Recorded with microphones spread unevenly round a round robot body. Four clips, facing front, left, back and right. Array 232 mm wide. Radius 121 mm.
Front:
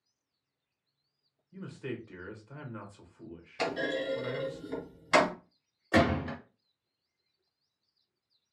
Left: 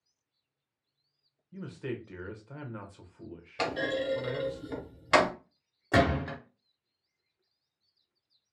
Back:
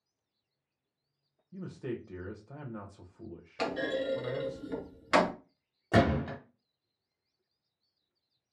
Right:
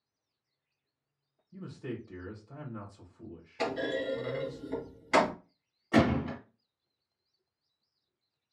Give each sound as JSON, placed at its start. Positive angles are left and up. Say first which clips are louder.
{"t": 1.5, "sound": "a man speaking", "louder": "left 2 dB, back 1 dB", "azimuth_deg": 115, "distance_m": 0.9}
{"t": 3.6, "sound": "a clunk", "louder": "left 1 dB, even", "azimuth_deg": 110, "distance_m": 1.3}
{"t": 5.9, "sound": "a gunshot", "louder": "even, even", "azimuth_deg": 155, "distance_m": 1.5}